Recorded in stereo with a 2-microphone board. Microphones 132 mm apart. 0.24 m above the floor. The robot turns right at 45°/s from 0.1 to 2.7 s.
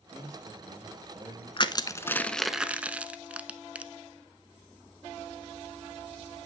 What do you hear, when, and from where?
0.1 s a man speaking: 80° right, 7 m; by 1.5 s 20° right, 7 m
1.6 s crushing: 40° left (ahead or behind), 0.6 m; by 3.9 s 10° right (ahead or behind), 0.6 m